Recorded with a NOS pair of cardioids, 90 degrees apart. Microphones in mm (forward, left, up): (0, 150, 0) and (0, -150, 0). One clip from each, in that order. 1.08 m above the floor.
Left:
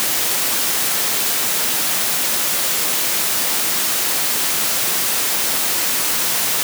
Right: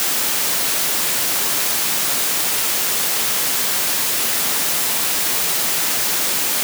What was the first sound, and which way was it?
Only background noise.